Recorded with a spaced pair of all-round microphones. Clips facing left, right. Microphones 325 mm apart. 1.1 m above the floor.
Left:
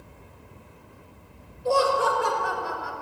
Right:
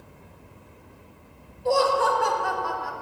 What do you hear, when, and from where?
1.6 s laughter: 5° left (ahead or behind), 1.9 m